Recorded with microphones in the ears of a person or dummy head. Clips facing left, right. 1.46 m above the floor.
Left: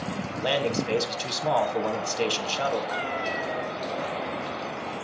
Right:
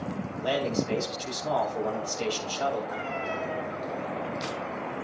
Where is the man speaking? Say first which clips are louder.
Left 1 dB; 70° left (ahead or behind), 5 m.